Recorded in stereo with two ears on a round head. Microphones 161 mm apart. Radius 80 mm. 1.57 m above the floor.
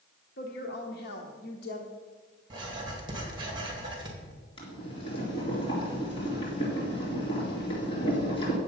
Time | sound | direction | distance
0.4 | a woman speaking | 60° left (ahead or behind) | 1.0 m
2.5 | writing | 25° right (ahead or behind) | 2.5 m
4.6 | boiling | 30° left (ahead or behind) | 3.5 m